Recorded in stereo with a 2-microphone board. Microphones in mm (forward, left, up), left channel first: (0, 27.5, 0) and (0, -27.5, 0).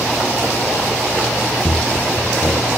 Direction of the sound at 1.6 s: 50° left (ahead or behind).